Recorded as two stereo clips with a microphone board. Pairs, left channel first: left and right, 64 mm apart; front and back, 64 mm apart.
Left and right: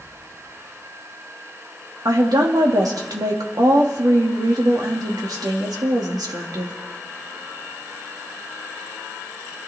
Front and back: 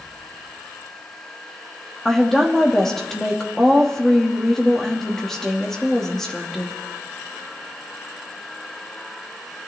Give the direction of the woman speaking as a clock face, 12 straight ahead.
3 o'clock.